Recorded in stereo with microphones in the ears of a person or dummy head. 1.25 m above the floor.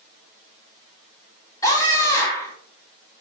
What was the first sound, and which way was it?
A scream, 20° left (ahead or behind).